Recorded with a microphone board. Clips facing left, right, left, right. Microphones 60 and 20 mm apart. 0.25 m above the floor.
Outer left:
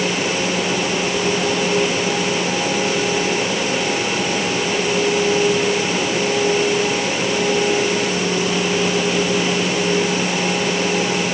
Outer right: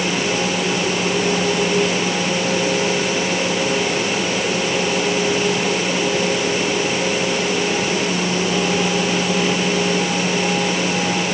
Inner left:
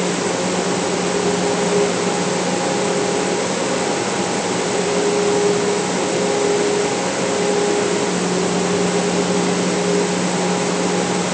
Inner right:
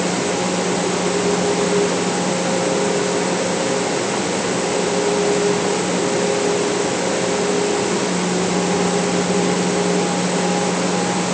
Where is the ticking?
I don't hear ticking.